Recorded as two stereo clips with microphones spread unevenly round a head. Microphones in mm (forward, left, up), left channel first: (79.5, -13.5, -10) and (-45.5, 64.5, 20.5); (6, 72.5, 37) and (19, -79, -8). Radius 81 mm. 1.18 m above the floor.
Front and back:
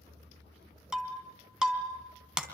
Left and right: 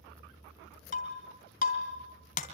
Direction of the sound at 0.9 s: 70° left.